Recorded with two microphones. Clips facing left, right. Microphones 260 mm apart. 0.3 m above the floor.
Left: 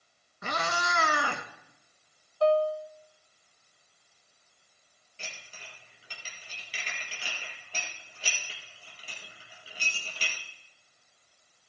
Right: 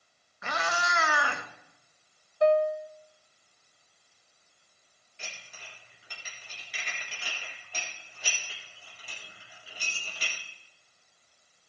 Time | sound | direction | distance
0.4 | a cat meowing | 45° left (ahead or behind) | 1.5 m
2.4 | a piano | 20° right (ahead or behind) | 0.5 m
5.2 | dishes clattering | 30° left (ahead or behind) | 5 m